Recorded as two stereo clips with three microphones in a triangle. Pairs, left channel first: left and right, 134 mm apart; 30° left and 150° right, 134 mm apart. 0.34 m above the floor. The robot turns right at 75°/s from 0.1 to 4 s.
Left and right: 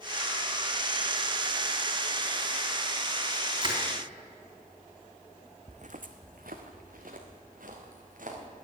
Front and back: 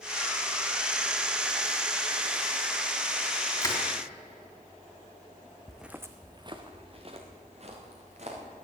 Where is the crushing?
35° right, 3 m; by 3.8 s 20° right, 3 m.